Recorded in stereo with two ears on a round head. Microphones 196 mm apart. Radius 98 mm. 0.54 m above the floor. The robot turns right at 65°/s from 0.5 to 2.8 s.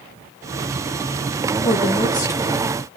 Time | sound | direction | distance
1.6 | a woman speaking | 115° left | 1.3 m